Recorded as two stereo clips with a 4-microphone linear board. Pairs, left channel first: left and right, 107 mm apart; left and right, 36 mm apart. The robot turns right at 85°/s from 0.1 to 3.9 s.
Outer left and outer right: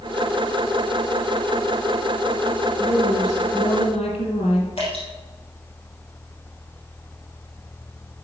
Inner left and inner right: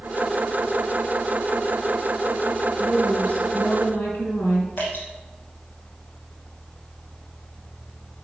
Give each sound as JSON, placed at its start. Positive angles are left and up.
{"t": 2.8, "sound": "a woman speaking", "azimuth_deg": -5, "distance_m": 5.0}
{"t": 4.8, "sound": "dripping", "side_deg": 60, "distance_m": 5.5}